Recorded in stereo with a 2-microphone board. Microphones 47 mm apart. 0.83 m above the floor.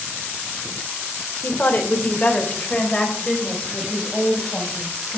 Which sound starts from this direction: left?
A woman speaking, at 1.4 s.